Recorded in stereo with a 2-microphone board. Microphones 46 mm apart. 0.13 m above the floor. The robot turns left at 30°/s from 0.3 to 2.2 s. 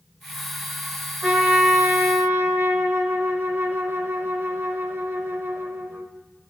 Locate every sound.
1.2 s a trumpet: 30° right (ahead or behind), 1.2 m; by 6.1 s 55° right (ahead or behind), 1.2 m